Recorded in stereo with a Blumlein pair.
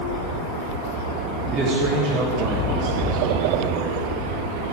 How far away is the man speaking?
About 1.7 m.